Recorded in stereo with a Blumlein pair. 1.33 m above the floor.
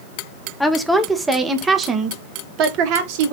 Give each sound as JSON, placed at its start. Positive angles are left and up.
{"t": 0.6, "sound": "a woman speaking", "azimuth_deg": 5, "distance_m": 1.5}